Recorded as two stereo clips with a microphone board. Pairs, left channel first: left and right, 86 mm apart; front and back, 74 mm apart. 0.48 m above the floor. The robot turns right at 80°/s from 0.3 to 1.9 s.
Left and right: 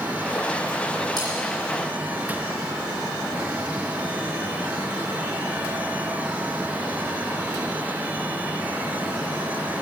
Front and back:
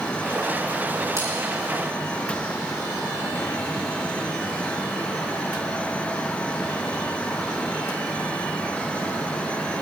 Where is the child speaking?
No child speaking in this recording.